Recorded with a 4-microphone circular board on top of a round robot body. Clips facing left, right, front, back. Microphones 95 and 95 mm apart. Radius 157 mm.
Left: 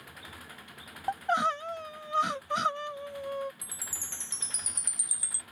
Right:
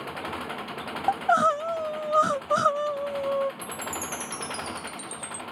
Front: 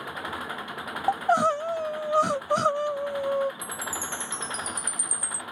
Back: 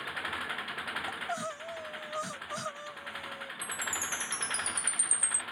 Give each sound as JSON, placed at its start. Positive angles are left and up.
{"t": 0.0, "sound": "an engine running", "azimuth_deg": -65}
{"t": 1.1, "sound": "crying", "azimuth_deg": -30}
{"t": 3.6, "sound": "a chime", "azimuth_deg": 40}